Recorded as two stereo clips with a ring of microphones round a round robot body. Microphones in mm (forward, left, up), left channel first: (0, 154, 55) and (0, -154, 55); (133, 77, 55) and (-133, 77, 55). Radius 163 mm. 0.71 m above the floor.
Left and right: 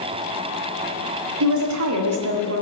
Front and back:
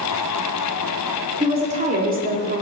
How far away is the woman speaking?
About 1.7 m.